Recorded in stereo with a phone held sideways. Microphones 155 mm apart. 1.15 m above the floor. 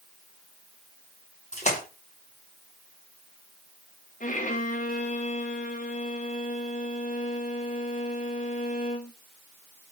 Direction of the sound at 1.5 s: 45° left (ahead or behind).